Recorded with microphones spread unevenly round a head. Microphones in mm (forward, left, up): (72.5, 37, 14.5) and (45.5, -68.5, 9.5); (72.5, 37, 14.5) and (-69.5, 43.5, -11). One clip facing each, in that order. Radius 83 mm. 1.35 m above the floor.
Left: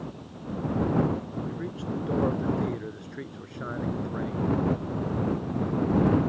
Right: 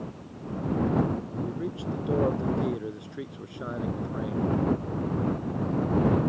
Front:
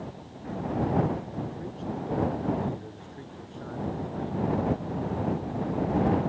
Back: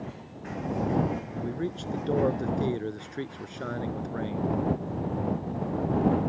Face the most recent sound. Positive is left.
turn(degrees=175)